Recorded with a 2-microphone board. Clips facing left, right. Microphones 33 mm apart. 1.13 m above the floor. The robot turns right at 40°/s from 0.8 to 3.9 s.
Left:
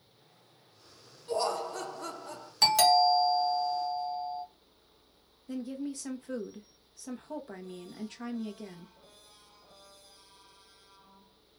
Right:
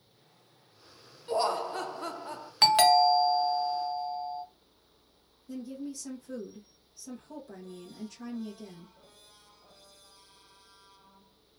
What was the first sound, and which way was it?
Laughter, 110° right.